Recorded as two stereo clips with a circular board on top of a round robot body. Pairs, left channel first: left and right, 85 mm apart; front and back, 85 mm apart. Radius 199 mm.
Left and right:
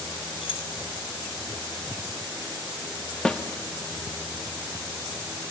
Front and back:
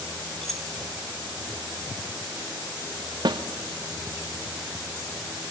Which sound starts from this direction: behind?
A snare drum, at 3.2 s.